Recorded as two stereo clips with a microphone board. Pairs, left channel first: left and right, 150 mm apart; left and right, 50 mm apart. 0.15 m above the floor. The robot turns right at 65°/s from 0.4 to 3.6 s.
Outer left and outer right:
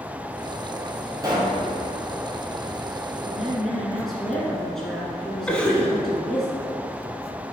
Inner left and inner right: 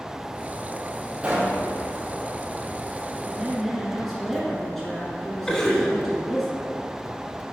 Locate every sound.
1.2 s a pop: 25° right (ahead or behind), 1.6 m; by 1.6 s 50° right (ahead or behind), 1.6 m
3.2 s a woman speaking: 15° right (ahead or behind), 1.5 m; by 6.5 s centre (ahead or behind), 1.5 m
5.5 s a cough: 10° left (ahead or behind), 1.1 m